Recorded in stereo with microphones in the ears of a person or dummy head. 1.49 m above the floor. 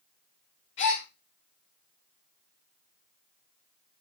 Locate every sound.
0.8 s a gasp: 45° left (ahead or behind), 1.5 m